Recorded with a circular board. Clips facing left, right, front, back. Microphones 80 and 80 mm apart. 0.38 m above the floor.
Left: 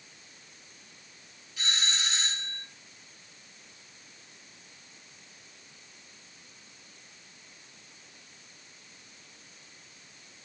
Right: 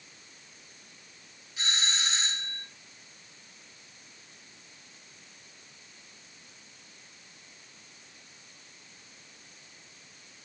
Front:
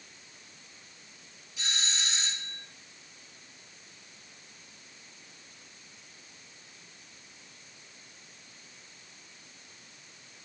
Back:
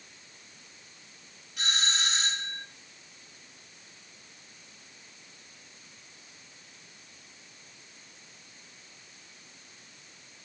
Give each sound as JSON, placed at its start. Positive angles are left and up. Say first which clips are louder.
{"t": 1.6, "sound": "a doorbell", "louder": "right 1 dB, back 5 dB", "azimuth_deg": -150, "distance_m": 3.5}